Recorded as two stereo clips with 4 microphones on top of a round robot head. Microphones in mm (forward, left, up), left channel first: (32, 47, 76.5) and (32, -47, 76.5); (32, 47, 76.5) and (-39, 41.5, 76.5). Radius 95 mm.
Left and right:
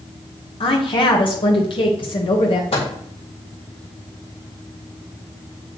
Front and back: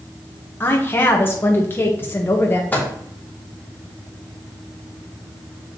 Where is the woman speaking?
65° left, 1.3 m.